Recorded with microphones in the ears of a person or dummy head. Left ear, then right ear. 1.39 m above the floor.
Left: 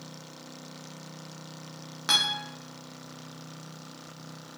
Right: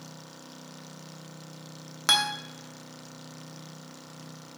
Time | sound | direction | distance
2.1 | a guitar | 25° right (ahead or behind) | 0.8 m